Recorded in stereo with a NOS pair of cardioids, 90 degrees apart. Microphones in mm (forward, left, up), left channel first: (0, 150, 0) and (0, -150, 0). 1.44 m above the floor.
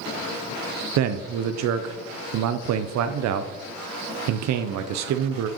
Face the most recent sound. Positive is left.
turn(degrees=-60)